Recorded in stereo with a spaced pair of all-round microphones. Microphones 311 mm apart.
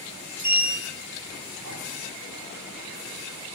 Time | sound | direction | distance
0.4 | a sliding door | 60° right (ahead or behind) | 2 m